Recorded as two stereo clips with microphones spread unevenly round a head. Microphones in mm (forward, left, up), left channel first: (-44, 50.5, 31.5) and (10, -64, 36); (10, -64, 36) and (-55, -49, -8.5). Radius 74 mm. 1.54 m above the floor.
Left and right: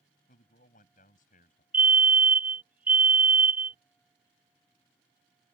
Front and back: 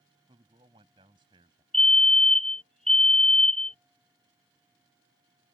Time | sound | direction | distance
0.3 | a man speaking | 140° left | ?
1.7 | a fire alarm | 140° right | ?